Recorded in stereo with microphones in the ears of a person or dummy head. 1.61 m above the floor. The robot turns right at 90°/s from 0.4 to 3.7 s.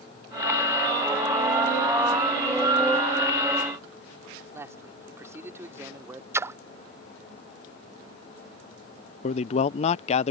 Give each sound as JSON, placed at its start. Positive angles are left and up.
{"t": 4.5, "sound": "a man speaking", "side_deg": -15}
{"t": 6.3, "sound": "a splash", "side_deg": -15}
{"t": 9.2, "sound": "a man speaking", "side_deg": 40}